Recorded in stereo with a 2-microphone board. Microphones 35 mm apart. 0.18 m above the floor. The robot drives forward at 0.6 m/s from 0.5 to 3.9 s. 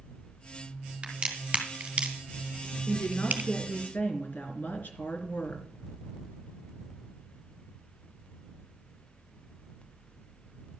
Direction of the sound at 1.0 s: 30° right (ahead or behind).